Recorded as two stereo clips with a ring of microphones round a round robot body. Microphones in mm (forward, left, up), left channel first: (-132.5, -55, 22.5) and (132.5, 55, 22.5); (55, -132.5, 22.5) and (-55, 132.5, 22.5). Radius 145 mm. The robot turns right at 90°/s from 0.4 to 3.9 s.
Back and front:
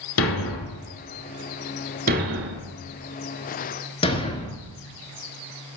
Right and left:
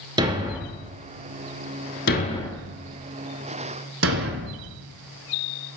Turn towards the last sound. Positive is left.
turn(degrees=140)